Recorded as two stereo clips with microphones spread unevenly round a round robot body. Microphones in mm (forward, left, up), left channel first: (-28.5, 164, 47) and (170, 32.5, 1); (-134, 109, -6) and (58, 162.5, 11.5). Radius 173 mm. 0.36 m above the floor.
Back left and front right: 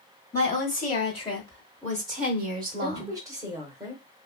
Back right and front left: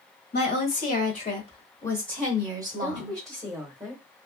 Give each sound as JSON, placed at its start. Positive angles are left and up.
{"t": 0.3, "sound": "a woman speaking", "azimuth_deg": -155, "distance_m": 1.3}
{"t": 2.8, "sound": "a woman speaking", "azimuth_deg": -55, "distance_m": 1.0}